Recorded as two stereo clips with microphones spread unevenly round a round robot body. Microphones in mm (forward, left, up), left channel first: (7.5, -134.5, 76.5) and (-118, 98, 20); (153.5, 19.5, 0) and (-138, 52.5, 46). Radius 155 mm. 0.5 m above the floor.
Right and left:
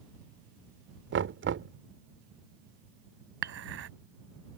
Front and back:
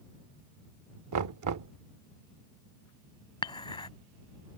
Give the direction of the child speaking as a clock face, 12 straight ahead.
I don't hear a child speaking.